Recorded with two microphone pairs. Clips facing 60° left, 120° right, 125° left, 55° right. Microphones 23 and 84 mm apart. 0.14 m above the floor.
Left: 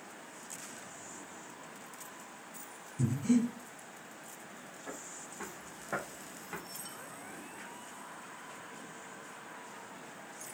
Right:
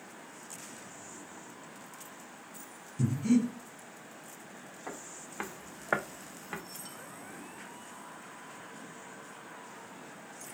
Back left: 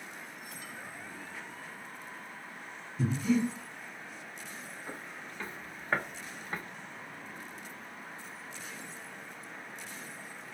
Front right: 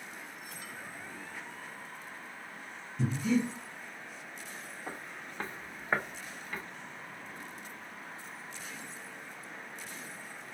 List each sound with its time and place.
3.0 s breathing: 150° right, 0.8 m
4.9 s footsteps: 80° right, 1.0 m; by 6.6 s 175° left, 0.8 m